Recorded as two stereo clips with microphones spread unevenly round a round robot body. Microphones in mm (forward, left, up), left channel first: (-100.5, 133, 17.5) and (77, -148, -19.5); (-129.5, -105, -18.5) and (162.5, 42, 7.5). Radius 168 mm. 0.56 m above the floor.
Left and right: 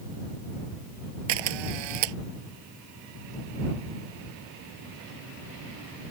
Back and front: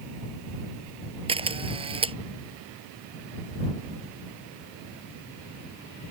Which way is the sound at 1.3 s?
45° right.